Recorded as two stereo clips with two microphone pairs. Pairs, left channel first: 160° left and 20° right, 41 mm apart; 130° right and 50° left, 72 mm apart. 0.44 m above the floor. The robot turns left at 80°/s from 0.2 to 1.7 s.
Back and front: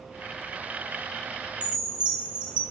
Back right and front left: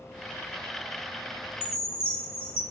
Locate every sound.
1.6 s a chime: 75° right, 0.9 m; by 2.6 s 85° right, 0.9 m